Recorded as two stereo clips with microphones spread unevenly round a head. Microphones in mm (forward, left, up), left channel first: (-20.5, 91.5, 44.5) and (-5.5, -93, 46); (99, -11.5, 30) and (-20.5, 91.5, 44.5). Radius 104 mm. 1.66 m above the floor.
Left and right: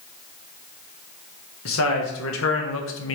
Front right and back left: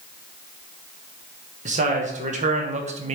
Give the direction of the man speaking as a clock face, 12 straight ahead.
9 o'clock.